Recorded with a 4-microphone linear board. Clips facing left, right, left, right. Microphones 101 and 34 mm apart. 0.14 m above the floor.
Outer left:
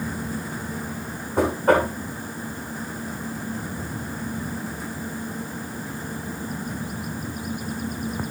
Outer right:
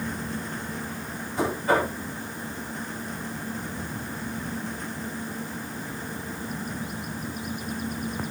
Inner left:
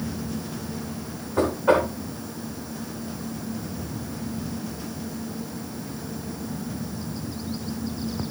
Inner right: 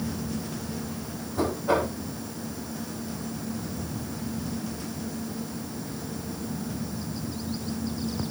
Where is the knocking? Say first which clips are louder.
Outer left 5 dB, inner left 5 dB; 60° left (ahead or behind), 8 m.